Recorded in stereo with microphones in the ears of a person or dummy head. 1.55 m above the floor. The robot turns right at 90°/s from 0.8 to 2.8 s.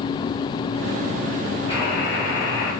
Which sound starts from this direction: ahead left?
A buzzer, at 1.7 s.